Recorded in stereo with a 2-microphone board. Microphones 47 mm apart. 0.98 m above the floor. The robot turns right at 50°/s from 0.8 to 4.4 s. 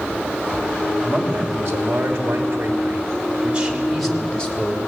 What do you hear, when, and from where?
1.0 s a man speaking: 145° right, 3 m; by 4.8 s 20° left, 3 m